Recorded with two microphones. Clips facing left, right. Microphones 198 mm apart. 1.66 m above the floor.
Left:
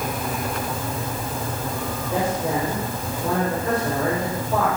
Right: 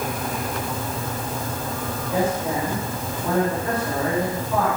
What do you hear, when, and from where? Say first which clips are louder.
2.1 s a man speaking: right 1 dB; 35° left (ahead or behind), 7.5 m